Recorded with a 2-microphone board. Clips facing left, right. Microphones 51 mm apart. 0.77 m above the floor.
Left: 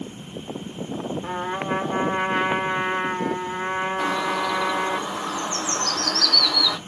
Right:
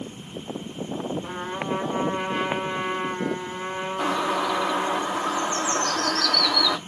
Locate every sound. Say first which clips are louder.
1.2 s a trumpet: left 3 dB; 60° left (ahead or behind), 1.3 m
4.0 s a bird: right 3 dB; 20° right (ahead or behind), 0.8 m